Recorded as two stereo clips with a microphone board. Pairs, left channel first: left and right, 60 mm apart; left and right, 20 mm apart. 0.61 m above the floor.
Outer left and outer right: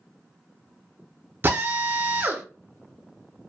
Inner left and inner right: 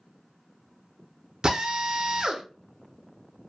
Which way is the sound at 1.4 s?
35° right (ahead or behind).